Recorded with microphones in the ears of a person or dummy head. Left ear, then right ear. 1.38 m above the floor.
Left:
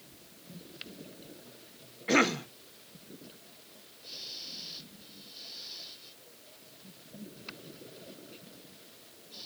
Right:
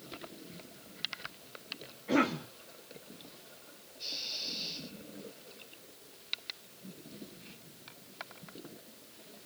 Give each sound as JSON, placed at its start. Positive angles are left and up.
{"t": 2.1, "sound": "a cough", "side_deg": 70, "distance_m": 1.2}